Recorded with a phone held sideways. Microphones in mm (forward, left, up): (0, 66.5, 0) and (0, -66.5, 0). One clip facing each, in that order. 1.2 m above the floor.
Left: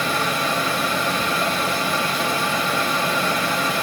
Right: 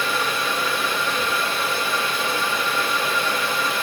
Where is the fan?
45° left (ahead or behind), 1.8 m.